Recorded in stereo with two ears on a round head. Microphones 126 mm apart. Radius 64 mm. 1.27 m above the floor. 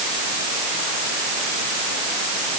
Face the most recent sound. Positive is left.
No sound to turn to.